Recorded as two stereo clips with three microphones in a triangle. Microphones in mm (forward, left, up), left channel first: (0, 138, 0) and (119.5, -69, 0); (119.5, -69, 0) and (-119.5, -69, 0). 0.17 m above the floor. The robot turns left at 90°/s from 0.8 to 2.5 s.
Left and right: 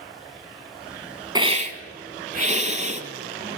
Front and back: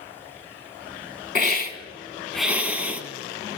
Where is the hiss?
5° left, 1.0 m; by 3.0 s 100° right, 1.0 m.